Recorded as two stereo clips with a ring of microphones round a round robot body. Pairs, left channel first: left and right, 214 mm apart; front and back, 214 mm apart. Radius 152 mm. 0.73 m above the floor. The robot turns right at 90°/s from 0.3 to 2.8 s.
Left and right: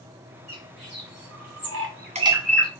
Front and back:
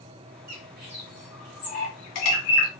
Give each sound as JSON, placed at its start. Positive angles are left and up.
{"t": 0.5, "sound": "a bird", "azimuth_deg": -175, "distance_m": 0.7}